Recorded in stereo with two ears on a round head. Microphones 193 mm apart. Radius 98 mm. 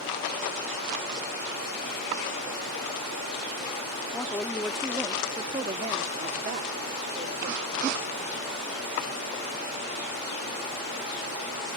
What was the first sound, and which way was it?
A woman speaking, 15° left (ahead or behind).